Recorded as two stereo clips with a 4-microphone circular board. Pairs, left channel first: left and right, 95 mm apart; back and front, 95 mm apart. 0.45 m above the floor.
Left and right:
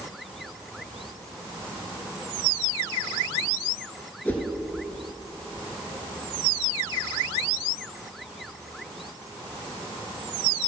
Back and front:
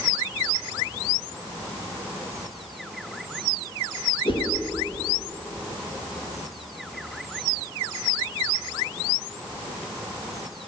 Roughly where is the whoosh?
Behind.